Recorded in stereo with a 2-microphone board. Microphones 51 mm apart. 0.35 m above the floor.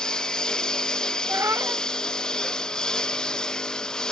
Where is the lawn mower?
15° left (ahead or behind).